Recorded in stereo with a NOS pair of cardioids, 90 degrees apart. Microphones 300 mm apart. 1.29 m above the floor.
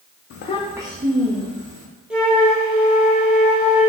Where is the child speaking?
50° left, 0.6 m; by 1.9 s 40° right, 2 m.